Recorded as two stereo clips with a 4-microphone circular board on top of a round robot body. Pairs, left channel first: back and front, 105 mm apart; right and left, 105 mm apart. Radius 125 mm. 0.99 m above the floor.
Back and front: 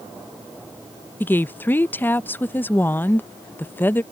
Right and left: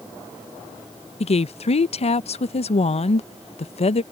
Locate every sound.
1.2 s a woman speaking: 110° right